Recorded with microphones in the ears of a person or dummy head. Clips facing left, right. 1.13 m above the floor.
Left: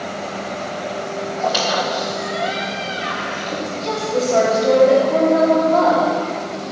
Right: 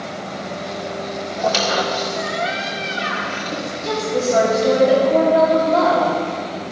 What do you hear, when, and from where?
1.4 s a squeak: 45° right (ahead or behind), 1.6 m
3.5 s a woman speaking: 15° right (ahead or behind), 3 m